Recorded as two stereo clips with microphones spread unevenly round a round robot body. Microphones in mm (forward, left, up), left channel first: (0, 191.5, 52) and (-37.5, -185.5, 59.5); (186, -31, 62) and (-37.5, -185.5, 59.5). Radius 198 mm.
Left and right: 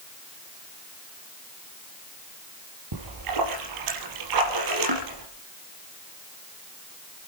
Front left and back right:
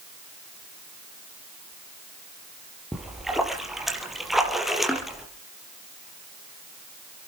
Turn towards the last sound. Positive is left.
turn(degrees=-55)